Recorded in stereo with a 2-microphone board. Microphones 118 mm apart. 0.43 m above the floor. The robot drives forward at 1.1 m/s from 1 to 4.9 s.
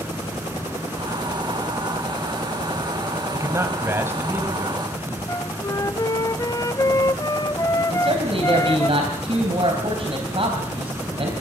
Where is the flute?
30° left (ahead or behind), 0.6 m.